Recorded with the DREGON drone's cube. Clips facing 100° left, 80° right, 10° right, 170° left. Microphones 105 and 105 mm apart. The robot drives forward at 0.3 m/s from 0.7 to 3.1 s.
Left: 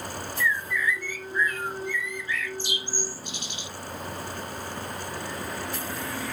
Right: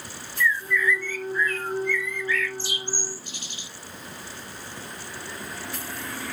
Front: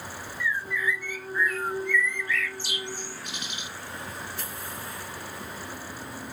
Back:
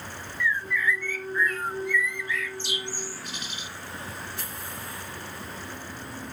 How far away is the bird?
About 0.8 m.